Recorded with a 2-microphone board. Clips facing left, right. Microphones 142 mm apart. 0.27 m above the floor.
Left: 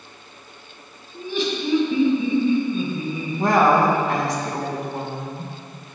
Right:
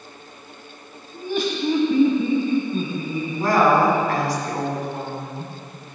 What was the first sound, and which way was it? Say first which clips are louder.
Laughter: right 1 dB; 50° right (ahead or behind).